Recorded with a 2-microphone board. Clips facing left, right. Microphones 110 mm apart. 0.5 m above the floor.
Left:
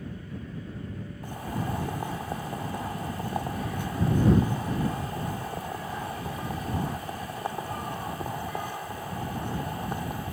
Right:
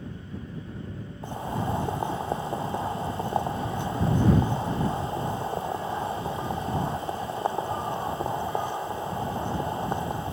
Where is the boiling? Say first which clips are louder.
Right 4 dB; 25° right (ahead or behind).